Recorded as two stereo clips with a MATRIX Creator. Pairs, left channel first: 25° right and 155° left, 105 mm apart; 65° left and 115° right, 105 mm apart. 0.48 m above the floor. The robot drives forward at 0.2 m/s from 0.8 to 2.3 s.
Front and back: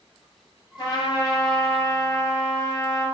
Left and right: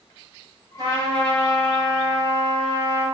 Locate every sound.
0.8 s a trumpet: 65° right, 1.6 m; by 3.0 s 80° right, 1.5 m